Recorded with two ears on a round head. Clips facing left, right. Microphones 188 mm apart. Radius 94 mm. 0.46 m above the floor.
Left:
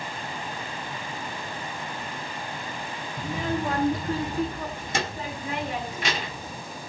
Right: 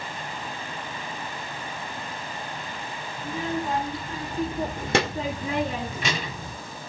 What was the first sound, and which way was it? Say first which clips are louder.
A child speaking: left 1 dB; 60° left (ahead or behind).